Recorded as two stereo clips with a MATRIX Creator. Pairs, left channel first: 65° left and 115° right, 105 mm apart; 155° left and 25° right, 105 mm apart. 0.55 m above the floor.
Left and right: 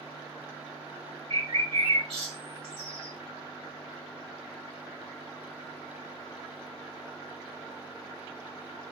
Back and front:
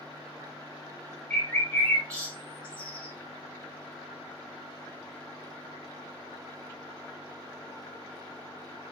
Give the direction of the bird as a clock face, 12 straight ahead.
4 o'clock.